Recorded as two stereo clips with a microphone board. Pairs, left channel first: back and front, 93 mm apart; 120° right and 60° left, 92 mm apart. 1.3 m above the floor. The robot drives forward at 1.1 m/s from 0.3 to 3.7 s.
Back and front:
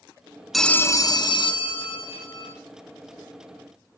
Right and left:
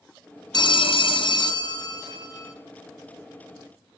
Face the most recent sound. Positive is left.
turn(degrees=-170)